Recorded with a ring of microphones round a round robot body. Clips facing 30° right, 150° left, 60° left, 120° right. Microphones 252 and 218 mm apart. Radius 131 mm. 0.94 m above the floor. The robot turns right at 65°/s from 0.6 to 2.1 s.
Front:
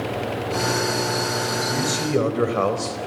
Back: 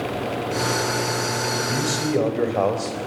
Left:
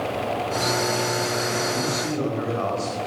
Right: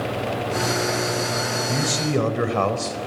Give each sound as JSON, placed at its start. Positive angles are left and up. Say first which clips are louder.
{"t": 1.7, "sound": "a man speaking", "louder": "even, right 2 dB", "azimuth_deg": -130, "distance_m": 4.0}